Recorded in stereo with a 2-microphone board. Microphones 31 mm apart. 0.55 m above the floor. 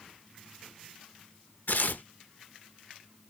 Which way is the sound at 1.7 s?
70° left (ahead or behind).